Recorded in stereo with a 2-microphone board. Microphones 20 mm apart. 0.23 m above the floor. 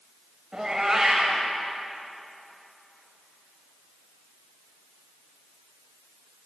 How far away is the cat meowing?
About 2.5 m.